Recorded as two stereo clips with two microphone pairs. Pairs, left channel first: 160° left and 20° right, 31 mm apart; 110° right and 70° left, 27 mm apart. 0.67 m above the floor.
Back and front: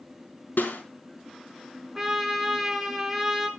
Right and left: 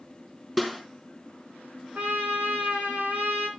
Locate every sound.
0.6 s a snare drum: 155° left, 4 m
1.9 s a trumpet: 60° left, 3.5 m